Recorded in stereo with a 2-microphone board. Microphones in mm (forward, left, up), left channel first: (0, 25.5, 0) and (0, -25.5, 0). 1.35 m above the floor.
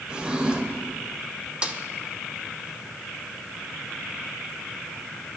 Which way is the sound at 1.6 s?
20° right (ahead or behind).